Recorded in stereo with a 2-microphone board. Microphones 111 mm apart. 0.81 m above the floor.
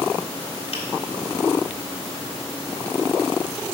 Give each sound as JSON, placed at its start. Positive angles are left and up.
{"t": 0.7, "sound": "a finger snap", "side_deg": 65, "distance_m": 2.0}